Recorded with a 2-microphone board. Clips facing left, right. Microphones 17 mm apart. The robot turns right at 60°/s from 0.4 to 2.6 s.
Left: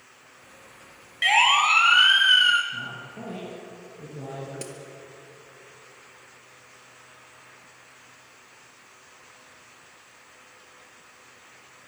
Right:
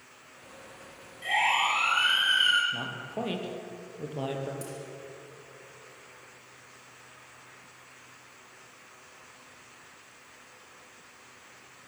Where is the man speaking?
70° right (ahead or behind), 6 m.